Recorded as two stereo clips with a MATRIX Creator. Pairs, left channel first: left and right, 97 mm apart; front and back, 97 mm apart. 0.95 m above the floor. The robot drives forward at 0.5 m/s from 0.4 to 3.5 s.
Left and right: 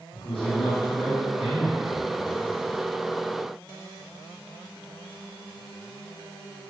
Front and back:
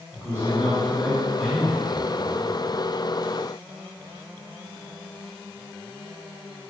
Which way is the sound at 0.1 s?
60° left.